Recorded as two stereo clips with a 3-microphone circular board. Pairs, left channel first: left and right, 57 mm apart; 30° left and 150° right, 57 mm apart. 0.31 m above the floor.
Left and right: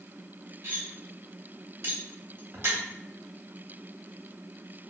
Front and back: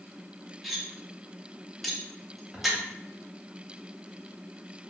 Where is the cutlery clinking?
60° right, 0.7 m.